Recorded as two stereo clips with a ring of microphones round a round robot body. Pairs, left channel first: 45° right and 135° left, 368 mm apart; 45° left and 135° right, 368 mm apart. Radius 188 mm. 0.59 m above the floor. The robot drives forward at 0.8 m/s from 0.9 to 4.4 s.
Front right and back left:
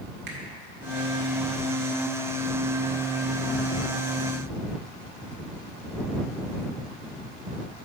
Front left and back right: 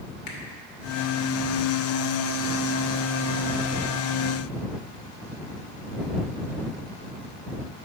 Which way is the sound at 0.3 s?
80° left.